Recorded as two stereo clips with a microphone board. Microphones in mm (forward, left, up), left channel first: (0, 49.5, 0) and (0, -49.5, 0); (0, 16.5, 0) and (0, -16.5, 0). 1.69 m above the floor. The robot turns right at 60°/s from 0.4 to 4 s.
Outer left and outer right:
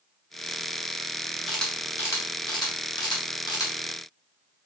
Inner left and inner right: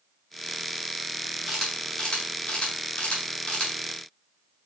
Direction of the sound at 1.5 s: Centre (ahead or behind).